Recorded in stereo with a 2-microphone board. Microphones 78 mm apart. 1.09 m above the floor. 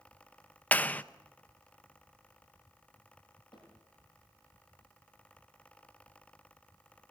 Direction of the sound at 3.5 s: 85° left.